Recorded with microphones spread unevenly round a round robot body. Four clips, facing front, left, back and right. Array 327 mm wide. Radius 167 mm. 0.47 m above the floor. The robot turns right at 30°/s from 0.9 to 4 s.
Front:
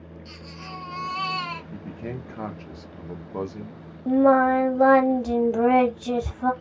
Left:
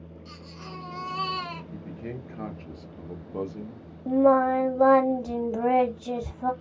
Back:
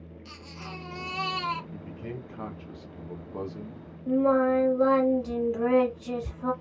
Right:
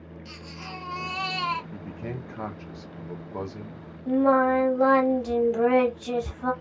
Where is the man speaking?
Straight ahead, 0.7 m; by 3.9 s 65° left, 0.7 m.